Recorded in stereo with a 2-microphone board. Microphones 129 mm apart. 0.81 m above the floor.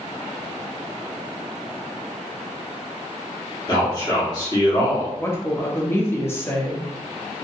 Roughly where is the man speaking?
Left.